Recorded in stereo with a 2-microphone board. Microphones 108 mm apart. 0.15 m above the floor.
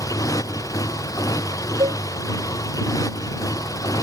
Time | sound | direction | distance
0.0 | a motorcycle | 30° left (ahead or behind) | ?
1.8 | a cowbell | 55° right (ahead or behind) | ?